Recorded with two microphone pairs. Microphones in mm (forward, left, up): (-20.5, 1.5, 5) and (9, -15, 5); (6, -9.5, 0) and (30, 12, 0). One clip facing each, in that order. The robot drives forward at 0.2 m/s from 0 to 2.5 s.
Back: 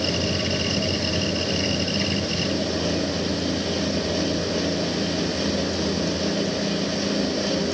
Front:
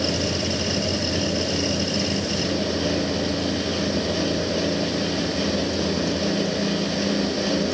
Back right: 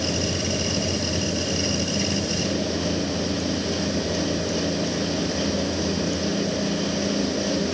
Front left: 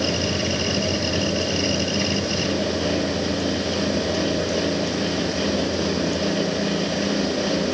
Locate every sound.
Only background noise.